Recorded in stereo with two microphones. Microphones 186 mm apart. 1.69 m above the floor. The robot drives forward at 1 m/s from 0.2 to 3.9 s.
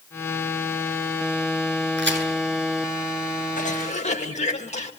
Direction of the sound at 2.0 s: 80° right.